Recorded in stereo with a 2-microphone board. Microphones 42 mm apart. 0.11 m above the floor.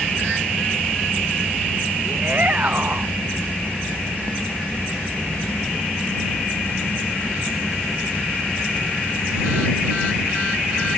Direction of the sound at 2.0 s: 40° right (ahead or behind).